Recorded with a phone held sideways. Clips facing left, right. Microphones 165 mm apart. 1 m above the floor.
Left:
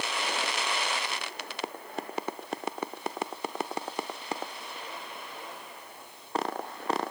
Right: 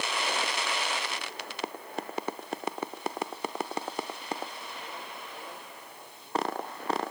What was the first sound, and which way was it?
Only background noise.